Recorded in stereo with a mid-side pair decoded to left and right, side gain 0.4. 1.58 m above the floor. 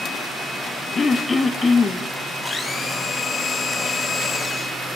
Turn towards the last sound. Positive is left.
turn(degrees=45)